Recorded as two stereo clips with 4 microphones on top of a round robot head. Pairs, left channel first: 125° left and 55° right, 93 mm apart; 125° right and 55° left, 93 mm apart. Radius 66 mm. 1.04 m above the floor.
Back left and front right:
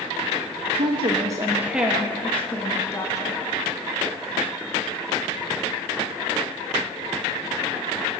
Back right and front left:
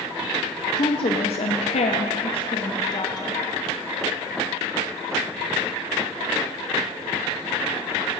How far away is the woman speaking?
About 1.0 m.